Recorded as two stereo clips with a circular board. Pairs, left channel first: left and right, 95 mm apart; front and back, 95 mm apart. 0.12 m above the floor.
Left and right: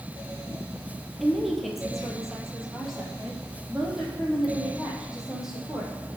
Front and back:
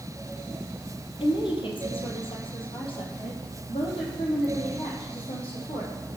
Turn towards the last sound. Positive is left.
turn(degrees=-5)